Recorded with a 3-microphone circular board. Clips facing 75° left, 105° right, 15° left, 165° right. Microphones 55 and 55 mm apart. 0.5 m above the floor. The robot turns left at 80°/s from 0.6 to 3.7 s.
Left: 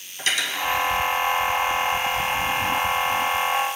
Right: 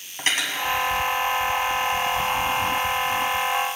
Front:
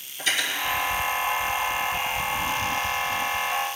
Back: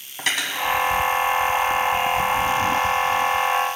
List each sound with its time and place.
0.2 s cutlery clinking: 155° right, 2.5 m